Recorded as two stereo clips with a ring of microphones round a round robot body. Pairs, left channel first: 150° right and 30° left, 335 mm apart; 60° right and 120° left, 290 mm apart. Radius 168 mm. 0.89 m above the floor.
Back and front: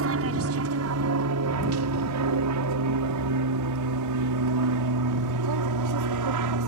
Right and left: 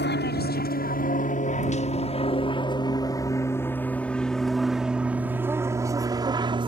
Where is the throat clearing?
No throat clearing in this recording.